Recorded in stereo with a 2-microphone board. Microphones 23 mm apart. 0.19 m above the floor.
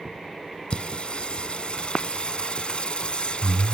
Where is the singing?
45° left (ahead or behind), 1.3 m.